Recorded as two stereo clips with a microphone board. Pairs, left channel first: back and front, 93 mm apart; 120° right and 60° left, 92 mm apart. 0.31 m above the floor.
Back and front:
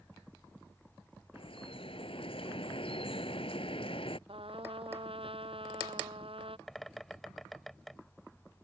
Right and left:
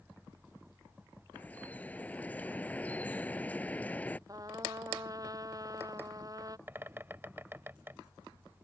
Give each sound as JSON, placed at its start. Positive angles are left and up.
{"t": 1.3, "sound": "dripping", "azimuth_deg": 165}
{"t": 4.3, "sound": "a trumpet", "azimuth_deg": 10}
{"t": 6.7, "sound": "a bird", "azimuth_deg": 95}